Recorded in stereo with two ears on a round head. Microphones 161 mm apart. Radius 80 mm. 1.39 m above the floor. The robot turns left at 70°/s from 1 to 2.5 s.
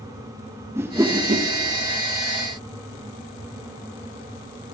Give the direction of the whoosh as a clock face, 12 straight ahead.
12 o'clock.